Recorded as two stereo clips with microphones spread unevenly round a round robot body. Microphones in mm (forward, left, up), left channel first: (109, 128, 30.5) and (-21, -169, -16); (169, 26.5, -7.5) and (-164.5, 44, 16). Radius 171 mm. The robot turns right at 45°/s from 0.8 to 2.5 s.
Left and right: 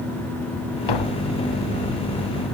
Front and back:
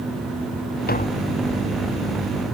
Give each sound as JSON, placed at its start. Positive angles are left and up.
{"t": 0.9, "sound": "tapping", "azimuth_deg": 60}